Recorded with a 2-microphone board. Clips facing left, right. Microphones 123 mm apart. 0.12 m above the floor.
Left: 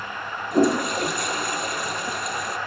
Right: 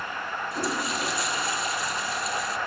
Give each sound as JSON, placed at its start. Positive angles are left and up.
{"t": 0.5, "sound": "a toilet flushing", "side_deg": 60, "distance_m": 1.3}